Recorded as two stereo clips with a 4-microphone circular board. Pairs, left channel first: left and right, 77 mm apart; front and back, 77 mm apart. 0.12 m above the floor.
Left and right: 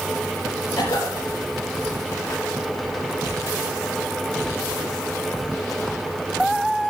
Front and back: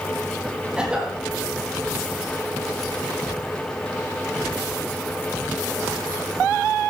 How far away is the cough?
About 4.5 m.